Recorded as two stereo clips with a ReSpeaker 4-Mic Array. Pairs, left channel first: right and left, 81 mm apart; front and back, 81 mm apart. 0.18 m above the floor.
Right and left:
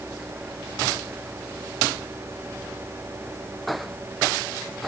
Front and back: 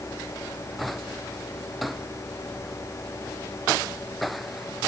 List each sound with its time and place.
Only background noise.